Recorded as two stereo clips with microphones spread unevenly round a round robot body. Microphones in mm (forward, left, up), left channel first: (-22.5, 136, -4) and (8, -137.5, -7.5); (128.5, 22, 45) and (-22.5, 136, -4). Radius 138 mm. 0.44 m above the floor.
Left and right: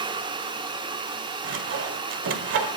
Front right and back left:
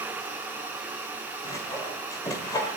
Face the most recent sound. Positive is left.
turn(degrees=-120)